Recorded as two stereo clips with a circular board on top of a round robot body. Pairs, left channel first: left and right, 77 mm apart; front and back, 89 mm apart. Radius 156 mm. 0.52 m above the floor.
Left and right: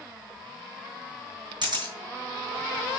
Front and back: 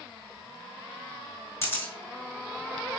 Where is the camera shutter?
60° right, 4.5 m.